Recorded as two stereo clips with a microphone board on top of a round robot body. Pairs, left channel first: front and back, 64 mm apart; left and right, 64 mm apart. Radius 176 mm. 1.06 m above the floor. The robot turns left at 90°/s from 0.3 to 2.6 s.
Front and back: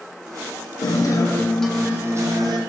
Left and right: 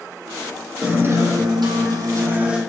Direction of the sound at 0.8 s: 10° right.